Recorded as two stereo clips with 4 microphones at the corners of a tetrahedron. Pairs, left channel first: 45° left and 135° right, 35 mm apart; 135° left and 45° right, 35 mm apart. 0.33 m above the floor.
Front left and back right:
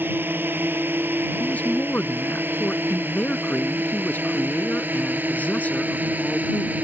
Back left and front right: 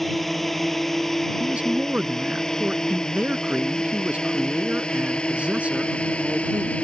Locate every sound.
0.0 s a drone: 140° right; by 6.8 s 170° right
1.4 s a man speaking: 5° left